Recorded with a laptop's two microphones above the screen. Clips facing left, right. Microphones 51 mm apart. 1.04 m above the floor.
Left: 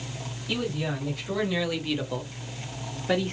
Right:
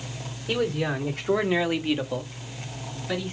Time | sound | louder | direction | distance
0.5 | a man speaking | right 4 dB | 40° right (ahead or behind) | 2 m